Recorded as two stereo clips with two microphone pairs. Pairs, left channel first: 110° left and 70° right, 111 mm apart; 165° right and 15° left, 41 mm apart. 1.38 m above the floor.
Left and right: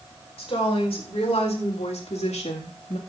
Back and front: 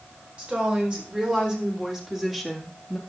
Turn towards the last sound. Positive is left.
turn(degrees=115)